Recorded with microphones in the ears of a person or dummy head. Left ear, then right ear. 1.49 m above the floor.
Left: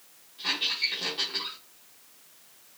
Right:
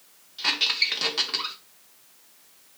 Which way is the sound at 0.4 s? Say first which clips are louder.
Right 5 dB; 50° right (ahead or behind).